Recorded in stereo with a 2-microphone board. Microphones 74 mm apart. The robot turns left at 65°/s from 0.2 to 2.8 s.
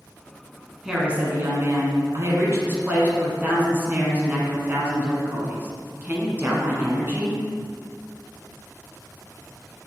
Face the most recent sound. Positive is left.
turn(degrees=-135)